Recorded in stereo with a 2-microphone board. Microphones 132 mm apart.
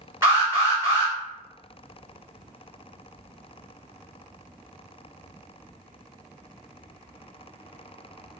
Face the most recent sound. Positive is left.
turn(degrees=-20)  # may be behind; listen again after turning